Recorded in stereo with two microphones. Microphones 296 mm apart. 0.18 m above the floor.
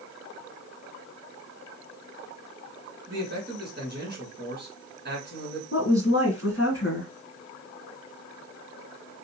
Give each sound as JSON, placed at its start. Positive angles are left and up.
{"t": 3.1, "sound": "a man speaking", "side_deg": -35, "distance_m": 2.0}
{"t": 5.7, "sound": "a woman speaking", "side_deg": 45, "distance_m": 2.0}